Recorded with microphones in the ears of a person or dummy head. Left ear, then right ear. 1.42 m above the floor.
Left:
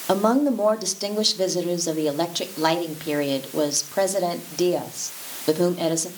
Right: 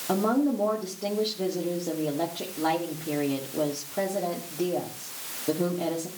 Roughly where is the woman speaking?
Left.